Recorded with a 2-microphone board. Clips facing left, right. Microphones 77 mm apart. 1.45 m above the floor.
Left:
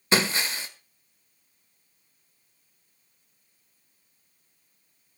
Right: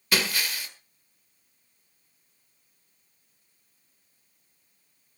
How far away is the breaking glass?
About 1.6 m.